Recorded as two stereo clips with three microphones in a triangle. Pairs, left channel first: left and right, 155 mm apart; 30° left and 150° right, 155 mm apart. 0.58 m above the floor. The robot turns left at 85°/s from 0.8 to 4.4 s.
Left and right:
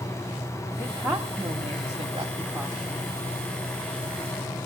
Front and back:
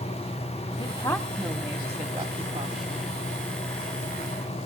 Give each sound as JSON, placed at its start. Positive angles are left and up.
{"t": 0.8, "sound": "a woman speaking", "azimuth_deg": 15, "distance_m": 1.3}